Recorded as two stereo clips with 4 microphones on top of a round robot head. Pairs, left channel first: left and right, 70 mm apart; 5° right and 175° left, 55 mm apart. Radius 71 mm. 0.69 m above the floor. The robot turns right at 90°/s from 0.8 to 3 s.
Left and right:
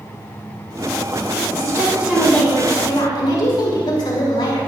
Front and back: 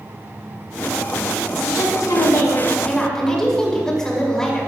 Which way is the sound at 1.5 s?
60° right.